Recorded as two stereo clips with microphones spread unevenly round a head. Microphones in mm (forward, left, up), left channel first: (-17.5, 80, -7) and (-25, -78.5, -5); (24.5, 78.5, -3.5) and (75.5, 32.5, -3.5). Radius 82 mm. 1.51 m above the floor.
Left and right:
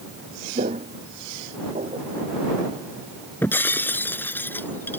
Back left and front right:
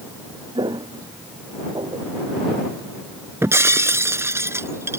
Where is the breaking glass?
10° left.